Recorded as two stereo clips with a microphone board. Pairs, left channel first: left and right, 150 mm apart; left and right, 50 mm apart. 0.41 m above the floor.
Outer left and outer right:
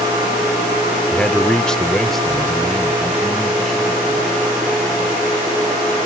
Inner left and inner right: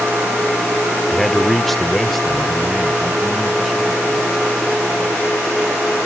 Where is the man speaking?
5° left (ahead or behind); by 4.5 s centre (ahead or behind).